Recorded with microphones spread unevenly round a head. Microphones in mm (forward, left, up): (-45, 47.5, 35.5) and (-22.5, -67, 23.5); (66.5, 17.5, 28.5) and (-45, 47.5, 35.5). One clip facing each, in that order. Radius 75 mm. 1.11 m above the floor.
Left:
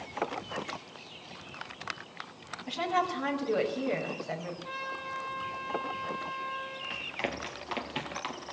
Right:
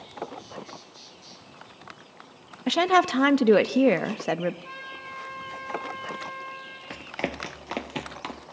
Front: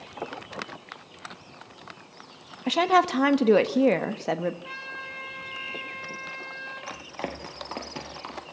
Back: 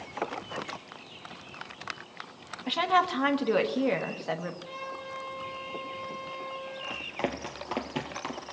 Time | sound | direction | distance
2.7 | a woman speaking | 70° right | 1.2 m
4.6 | a trumpet | 20° right | 8 m
6.9 | running footsteps | 115° right | 1.6 m